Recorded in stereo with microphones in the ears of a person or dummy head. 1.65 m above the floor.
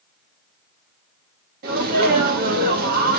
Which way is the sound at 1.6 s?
50° right (ahead or behind).